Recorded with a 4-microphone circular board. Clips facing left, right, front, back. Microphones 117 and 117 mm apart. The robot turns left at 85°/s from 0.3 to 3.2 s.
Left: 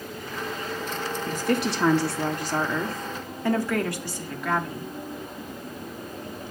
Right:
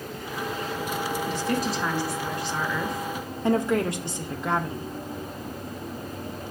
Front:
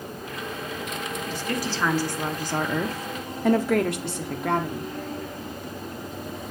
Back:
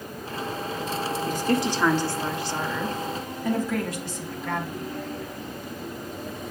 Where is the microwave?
I don't hear a microwave.